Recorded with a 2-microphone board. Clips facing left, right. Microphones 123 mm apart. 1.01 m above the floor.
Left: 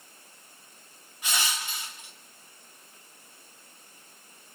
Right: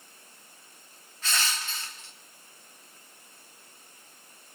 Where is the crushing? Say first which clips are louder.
Even; 15° left (ahead or behind), 0.9 m.